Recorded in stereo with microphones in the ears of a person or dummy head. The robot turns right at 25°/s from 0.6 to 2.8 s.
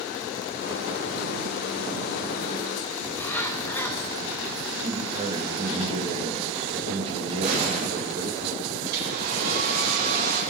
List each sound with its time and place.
3.0 s a bird: 15° left (ahead or behind), 1.2 m
4.8 s a man speaking: 35° right (ahead or behind), 2 m
7.4 s a gunshot: 45° right (ahead or behind), 3.5 m
8.8 s a hair dryer: 60° right (ahead or behind), 3.5 m